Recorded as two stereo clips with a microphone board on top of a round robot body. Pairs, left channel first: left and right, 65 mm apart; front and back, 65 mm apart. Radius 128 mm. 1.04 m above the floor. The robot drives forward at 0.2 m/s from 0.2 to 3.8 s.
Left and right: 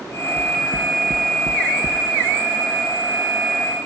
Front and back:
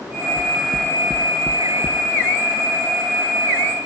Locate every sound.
0.4 s knocking: 50° right, 0.7 m; by 2.0 s 80° right, 0.5 m